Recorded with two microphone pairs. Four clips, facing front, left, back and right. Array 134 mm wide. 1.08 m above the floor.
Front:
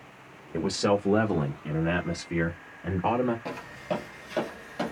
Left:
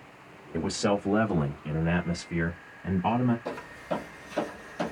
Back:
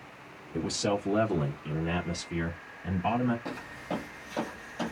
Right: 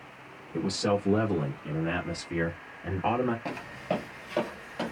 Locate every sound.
0.5 s a man speaking: 25° left, 1.1 m; by 3.4 s 30° right, 1.7 m
3.5 s footsteps: 70° right, 1.3 m; by 4.9 s 30° right, 1.8 m